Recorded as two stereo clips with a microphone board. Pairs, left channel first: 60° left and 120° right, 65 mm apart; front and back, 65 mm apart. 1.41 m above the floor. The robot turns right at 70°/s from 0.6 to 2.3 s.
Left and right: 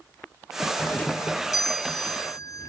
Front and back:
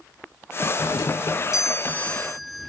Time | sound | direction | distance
0.8 | a doorbell | 15° right | 0.7 m